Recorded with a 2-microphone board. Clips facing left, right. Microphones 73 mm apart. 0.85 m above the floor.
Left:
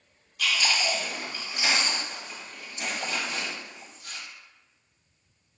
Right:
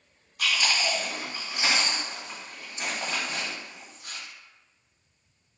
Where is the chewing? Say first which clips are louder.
Even; 40° right (ahead or behind), 0.9 m.